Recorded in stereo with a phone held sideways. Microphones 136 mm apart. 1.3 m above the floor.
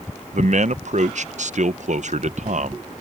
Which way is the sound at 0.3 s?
65° right (ahead or behind).